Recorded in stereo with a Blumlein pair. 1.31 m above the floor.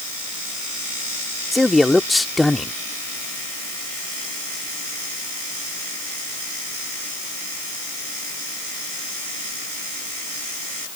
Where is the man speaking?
5° left.